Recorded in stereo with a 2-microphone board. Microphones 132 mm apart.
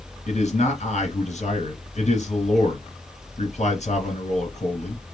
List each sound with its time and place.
0.3 s a man speaking: 60° left (ahead or behind), 2.5 m